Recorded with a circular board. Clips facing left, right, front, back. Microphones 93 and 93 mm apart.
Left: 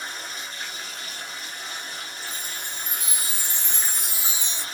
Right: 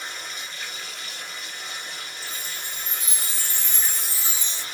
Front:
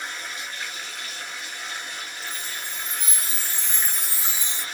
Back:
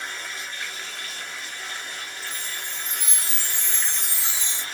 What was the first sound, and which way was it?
Running water, 70° left.